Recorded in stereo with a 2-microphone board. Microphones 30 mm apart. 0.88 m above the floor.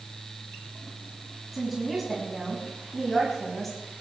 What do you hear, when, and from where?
1.5 s a woman speaking: 5° right (ahead or behind), 7 m; by 3.8 s 10° left (ahead or behind), 6 m